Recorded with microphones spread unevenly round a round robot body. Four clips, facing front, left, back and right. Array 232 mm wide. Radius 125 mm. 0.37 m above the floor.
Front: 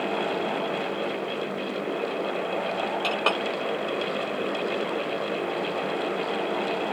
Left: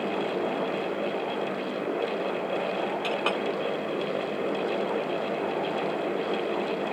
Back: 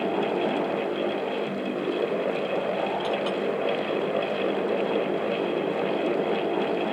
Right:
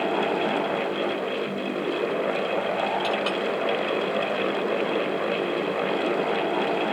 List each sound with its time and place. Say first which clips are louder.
3.0 s a clink: right 2 dB, even; 10° left